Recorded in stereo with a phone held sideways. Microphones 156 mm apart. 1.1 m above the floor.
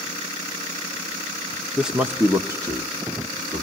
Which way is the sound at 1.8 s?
Centre (ahead or behind).